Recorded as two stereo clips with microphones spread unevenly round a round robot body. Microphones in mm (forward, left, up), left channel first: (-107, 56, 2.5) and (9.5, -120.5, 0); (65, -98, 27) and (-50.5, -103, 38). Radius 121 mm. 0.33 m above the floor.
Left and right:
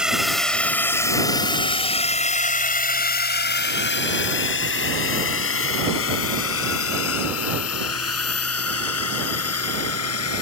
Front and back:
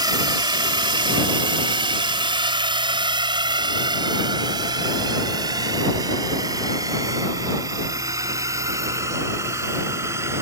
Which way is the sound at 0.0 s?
140° right.